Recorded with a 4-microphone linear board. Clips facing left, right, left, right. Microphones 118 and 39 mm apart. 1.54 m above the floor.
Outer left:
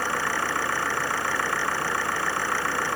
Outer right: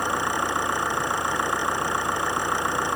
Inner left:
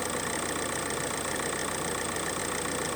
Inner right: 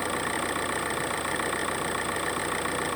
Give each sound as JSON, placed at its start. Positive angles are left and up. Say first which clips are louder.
{"t": 0.0, "sound": "an engine running", "louder": "outer right 2 dB, inner right 3 dB", "side_deg": -20}